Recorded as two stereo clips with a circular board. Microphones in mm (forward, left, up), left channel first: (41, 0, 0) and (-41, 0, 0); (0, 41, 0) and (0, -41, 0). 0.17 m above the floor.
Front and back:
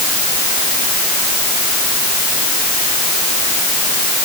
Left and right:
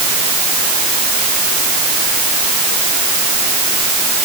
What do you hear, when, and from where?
Only background noise.